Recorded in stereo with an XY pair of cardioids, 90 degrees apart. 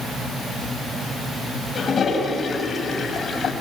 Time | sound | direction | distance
1.8 | a toilet flushing | 50° left | 5 m